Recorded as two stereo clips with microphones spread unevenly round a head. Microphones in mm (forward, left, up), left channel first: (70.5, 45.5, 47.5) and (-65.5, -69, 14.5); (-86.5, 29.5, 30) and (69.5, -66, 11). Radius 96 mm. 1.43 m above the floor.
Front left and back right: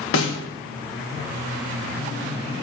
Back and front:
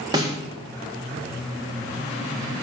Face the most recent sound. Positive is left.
turn(degrees=40)